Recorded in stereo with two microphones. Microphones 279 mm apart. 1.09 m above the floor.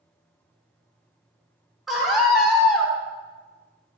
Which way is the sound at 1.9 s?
Centre (ahead or behind).